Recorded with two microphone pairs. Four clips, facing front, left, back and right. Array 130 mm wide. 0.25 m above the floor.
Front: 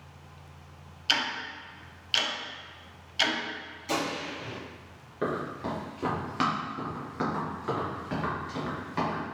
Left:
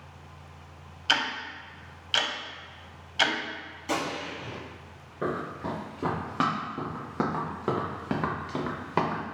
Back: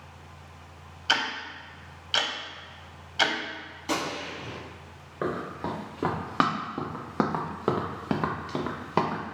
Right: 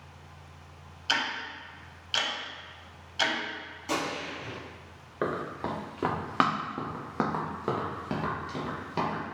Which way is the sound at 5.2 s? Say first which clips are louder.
Even, even; 115° right.